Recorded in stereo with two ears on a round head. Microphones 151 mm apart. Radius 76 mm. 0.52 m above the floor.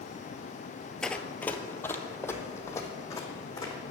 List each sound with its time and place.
1.0 s running footsteps: 5° left (ahead or behind), 0.5 m; by 3.8 s 20° left (ahead or behind), 1.9 m